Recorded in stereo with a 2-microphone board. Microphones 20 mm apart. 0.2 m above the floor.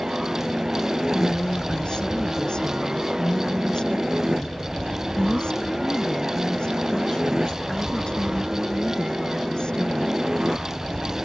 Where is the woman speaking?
50° left (ahead or behind).